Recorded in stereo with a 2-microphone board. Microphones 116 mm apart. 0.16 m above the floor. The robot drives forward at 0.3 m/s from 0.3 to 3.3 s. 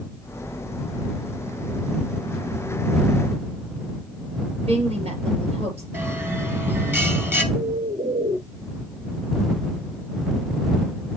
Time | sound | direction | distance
4.6 | a woman speaking | 60° right (ahead or behind) | 3.5 m
5.9 | a bell | 20° right (ahead or behind) | 1.1 m
7.5 | a bird | 50° right (ahead or behind) | 0.6 m